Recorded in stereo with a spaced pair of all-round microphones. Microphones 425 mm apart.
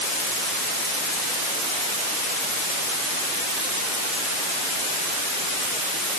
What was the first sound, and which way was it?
Only background noise.